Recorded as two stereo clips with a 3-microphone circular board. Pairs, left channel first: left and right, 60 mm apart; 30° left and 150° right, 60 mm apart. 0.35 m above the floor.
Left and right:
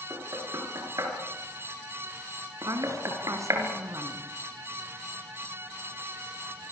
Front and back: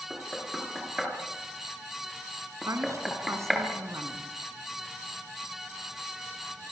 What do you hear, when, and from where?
0.1 s knocking: 60° right, 5 m
2.6 s a woman speaking: 120° right, 3.5 m